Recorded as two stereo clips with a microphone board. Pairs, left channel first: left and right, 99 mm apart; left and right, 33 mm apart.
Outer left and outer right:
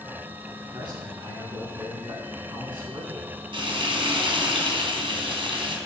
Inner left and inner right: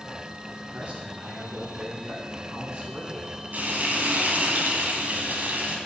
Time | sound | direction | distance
0.7 | a man speaking | 45° right (ahead or behind) | 5 m
3.5 | frying | 60° right (ahead or behind) | 2 m